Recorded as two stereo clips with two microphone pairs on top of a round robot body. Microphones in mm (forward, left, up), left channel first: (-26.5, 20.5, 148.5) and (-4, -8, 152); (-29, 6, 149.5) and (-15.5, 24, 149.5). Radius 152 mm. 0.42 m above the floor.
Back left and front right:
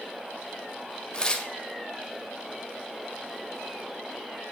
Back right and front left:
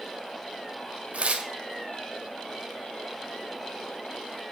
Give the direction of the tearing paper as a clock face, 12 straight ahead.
10 o'clock.